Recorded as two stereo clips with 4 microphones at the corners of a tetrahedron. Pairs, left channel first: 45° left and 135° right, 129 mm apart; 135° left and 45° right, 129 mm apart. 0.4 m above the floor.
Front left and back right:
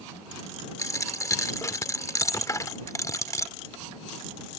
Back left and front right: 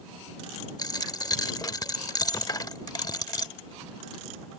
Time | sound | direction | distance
0.8 | a dropped coin | 100° left | ?